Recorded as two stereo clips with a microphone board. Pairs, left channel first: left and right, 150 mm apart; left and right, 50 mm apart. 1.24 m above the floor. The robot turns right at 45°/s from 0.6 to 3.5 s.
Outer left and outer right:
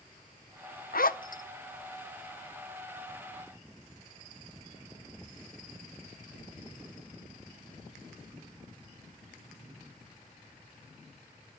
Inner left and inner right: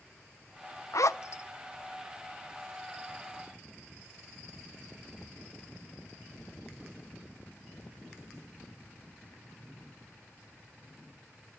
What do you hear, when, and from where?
0.9 s a zipper: 75° left (ahead or behind), 0.6 m; by 1.4 s 60° left (ahead or behind), 0.6 m